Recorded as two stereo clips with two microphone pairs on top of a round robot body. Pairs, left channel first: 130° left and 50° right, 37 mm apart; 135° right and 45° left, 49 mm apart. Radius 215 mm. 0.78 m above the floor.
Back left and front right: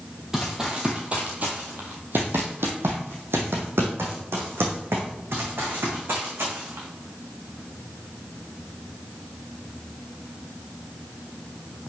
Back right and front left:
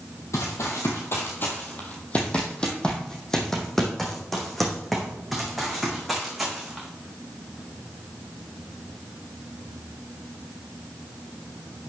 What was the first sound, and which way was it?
Running footsteps, 130° right.